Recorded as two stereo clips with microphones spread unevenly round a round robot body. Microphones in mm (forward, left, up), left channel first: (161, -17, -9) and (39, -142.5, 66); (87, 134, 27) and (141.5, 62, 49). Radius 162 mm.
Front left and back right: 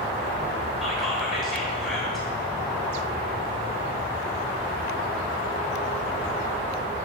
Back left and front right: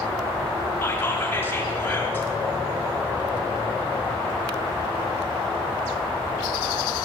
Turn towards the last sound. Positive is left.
turn(degrees=100)